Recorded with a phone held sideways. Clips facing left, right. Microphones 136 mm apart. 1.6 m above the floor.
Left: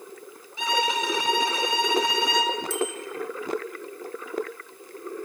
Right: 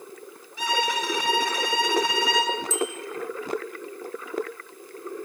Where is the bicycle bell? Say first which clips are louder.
Even; 65° left (ahead or behind), 6.5 m.